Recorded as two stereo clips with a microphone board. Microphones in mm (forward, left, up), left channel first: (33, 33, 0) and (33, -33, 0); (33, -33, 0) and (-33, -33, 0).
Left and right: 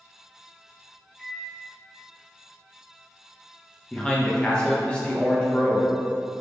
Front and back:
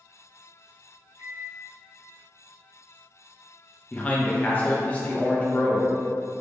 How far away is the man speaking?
About 0.6 m.